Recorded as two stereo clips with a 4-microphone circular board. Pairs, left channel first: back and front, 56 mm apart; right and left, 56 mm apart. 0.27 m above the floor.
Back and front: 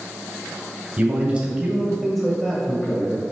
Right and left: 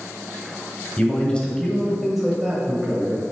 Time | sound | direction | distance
1.0 | a man speaking | 40° right | 1.8 m